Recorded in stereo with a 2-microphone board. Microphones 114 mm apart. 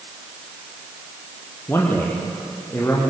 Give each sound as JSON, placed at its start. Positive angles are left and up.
{"t": 1.7, "sound": "a man speaking", "side_deg": 20, "distance_m": 5.0}